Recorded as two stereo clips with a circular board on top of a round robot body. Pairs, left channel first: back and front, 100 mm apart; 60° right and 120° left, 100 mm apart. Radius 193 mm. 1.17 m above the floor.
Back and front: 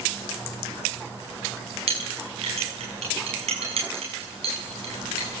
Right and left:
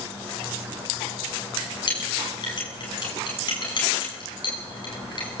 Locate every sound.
1.9 s a clink: 15° right, 7 m